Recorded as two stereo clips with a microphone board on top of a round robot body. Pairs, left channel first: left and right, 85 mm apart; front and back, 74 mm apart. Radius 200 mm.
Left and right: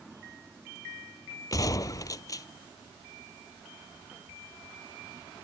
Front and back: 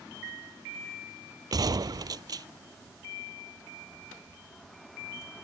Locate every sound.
1.5 s a gunshot: 140° left